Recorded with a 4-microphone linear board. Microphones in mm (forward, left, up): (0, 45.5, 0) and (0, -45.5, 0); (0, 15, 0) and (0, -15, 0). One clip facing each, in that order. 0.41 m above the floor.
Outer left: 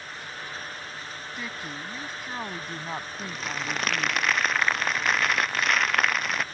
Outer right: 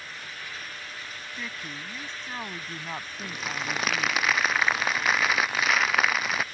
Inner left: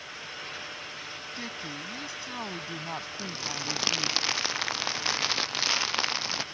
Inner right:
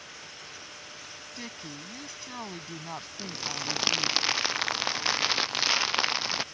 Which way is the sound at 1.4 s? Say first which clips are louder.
Outer left 2 dB, inner left 3 dB; 10° left (ahead or behind).